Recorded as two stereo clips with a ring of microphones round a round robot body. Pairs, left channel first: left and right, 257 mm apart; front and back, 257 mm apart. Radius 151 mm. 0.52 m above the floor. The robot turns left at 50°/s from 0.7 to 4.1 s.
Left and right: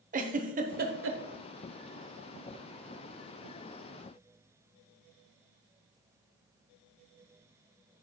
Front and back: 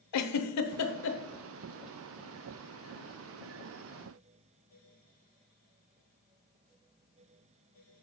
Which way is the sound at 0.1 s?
25° right.